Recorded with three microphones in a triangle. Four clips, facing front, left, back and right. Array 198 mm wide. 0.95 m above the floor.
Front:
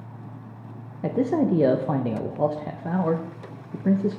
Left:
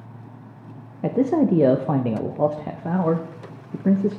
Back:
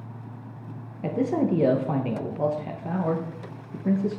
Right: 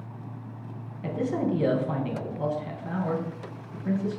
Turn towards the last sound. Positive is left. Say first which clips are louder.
# left 8 dB, front 2 dB
turn(degrees=80)